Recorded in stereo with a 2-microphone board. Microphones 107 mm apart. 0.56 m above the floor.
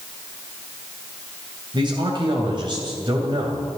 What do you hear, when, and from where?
1.7 s a man speaking: 45° right (ahead or behind), 2.5 m